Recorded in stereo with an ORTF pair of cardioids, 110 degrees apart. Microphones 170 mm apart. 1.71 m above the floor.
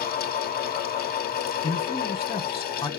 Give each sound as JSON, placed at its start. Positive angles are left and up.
{"t": 0.0, "sound": "a fan", "azimuth_deg": 65, "distance_m": 1.0}
{"t": 1.6, "sound": "a man speaking", "azimuth_deg": 35, "distance_m": 1.2}